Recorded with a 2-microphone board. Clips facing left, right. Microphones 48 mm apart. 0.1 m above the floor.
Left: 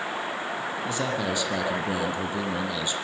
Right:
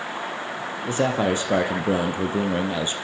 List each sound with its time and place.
0.9 s a man speaking: 40° right (ahead or behind), 3 m